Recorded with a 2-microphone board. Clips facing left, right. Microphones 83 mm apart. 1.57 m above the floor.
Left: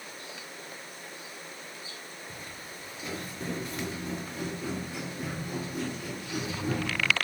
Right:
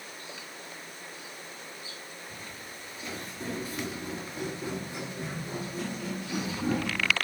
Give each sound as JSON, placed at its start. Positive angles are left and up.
{"t": 2.3, "sound": "footsteps", "side_deg": 20, "distance_m": 1.6}